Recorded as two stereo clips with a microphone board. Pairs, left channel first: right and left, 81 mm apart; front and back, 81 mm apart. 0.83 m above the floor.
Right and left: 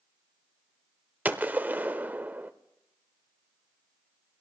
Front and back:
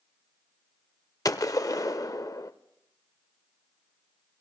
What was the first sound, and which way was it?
A gunshot, 25° left.